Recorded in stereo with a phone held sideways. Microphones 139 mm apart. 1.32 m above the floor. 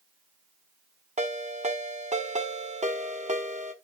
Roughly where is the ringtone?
Right.